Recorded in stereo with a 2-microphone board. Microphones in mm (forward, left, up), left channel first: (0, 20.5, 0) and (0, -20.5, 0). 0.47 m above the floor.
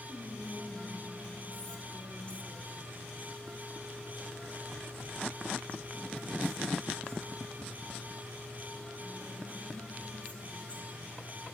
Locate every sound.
0.1 s whispering: 30° left (ahead or behind), 0.9 m